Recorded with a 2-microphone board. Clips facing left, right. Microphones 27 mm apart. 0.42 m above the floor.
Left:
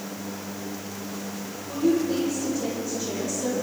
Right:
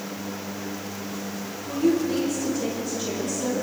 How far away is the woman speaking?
About 10 m.